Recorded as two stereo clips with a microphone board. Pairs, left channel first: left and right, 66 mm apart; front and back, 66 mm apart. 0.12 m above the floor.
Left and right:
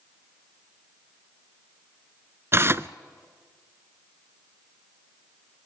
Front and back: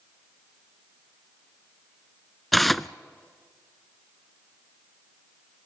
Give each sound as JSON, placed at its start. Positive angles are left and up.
{"t": 2.5, "sound": "tearing paper", "azimuth_deg": -90, "distance_m": 0.5}